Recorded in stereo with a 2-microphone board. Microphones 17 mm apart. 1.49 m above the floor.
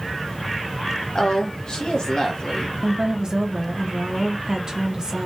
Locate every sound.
1.1 s a woman speaking: 50° left (ahead or behind), 0.8 m
2.8 s a woman speaking: 30° right (ahead or behind), 0.6 m